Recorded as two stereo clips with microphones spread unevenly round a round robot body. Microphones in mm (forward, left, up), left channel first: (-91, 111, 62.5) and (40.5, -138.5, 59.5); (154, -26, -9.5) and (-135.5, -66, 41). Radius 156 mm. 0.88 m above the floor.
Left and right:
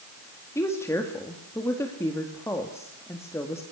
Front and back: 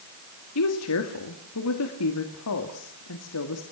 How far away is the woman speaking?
About 2.0 m.